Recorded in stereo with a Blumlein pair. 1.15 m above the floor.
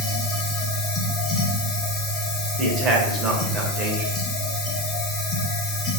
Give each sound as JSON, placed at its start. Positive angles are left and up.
{"t": 0.0, "sound": "a machine running", "azimuth_deg": 30, "distance_m": 0.7}
{"t": 2.6, "sound": "a man speaking", "azimuth_deg": -25, "distance_m": 1.0}